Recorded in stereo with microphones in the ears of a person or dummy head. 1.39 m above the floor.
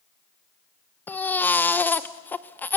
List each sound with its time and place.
1.1 s a baby crying: 5° left (ahead or behind), 0.5 m